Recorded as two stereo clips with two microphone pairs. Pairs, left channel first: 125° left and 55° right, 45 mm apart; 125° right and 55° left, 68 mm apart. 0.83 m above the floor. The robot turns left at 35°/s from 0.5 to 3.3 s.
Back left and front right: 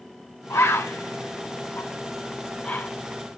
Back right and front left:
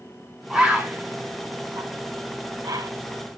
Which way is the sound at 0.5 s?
135° left.